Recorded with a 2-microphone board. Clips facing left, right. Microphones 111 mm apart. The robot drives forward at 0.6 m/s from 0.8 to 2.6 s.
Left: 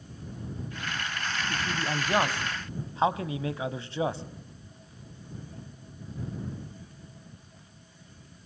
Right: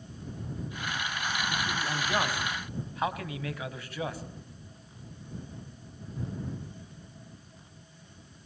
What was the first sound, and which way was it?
A man speaking, 20° left (ahead or behind).